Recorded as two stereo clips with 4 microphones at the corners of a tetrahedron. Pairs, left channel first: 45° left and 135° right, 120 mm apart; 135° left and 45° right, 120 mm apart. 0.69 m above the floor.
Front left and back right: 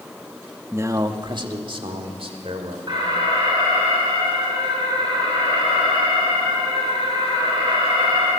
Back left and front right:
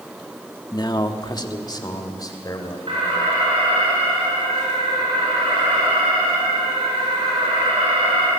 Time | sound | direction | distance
0.7 | a man speaking | 165° left | 1.0 m
2.9 | an alarm | 85° right | 8.5 m